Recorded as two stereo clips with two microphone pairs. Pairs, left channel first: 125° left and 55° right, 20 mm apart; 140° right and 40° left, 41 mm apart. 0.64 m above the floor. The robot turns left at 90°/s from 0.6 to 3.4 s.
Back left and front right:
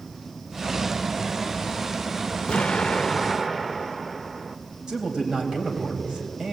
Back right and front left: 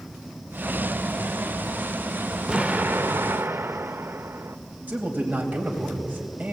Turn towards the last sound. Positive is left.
turn(degrees=-5)